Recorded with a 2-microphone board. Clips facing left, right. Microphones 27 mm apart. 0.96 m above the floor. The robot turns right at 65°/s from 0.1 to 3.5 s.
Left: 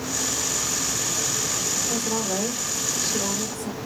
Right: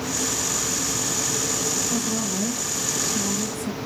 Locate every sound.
1.9 s a woman speaking: 45° left, 3 m; by 3.8 s 150° left, 3 m